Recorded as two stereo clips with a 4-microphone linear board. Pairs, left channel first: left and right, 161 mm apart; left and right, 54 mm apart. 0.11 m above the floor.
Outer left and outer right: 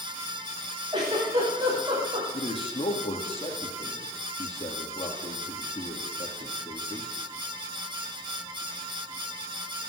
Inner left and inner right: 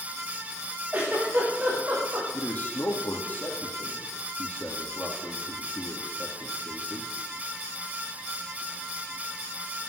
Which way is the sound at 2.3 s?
35° left (ahead or behind).